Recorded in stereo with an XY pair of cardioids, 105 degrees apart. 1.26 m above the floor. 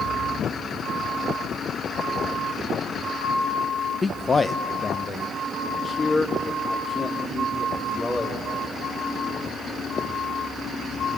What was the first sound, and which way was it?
A man speaking, 25° left.